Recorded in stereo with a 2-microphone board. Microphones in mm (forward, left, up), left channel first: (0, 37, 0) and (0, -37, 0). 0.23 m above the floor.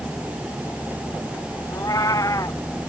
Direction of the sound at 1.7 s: 55° left (ahead or behind).